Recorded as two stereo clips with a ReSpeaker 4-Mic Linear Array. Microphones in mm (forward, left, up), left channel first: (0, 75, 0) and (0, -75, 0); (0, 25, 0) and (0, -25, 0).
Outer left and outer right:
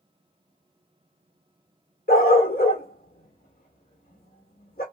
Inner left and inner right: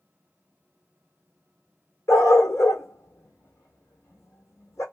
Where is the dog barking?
80° left, 1.5 m.